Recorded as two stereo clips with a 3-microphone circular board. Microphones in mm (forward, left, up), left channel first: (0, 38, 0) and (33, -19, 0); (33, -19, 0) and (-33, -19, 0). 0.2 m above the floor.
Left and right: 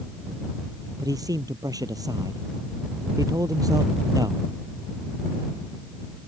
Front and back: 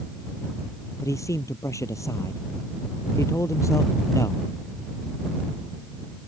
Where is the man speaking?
40° right.